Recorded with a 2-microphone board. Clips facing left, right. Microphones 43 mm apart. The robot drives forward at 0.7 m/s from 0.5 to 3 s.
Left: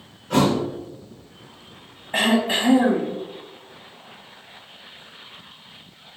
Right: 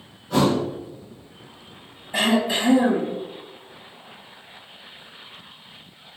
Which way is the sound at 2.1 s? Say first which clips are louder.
Left 1 dB; 40° left (ahead or behind).